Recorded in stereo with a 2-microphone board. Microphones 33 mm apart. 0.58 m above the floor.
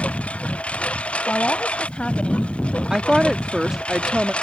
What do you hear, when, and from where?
0.0 s a lawn mower: 40° left (ahead or behind); by 4.4 s 35° left (ahead or behind)
1.3 s a woman speaking: 35° left (ahead or behind)
2.9 s a woman speaking: 20° right (ahead or behind)